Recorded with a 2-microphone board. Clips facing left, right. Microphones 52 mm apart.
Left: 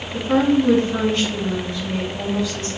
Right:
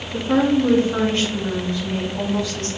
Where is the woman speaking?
10° right (ahead or behind), 1.5 m; by 2.7 s 50° right (ahead or behind), 2.5 m.